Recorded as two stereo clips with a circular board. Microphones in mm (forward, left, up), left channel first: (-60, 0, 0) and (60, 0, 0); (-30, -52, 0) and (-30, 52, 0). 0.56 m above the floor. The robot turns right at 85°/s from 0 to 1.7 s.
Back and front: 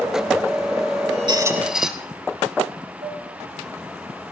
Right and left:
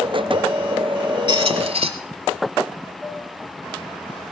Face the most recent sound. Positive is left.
turn(degrees=5)